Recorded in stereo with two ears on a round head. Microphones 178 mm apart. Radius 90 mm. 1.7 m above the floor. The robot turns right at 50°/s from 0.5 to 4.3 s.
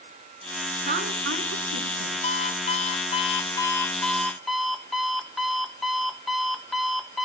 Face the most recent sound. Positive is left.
turn(degrees=180)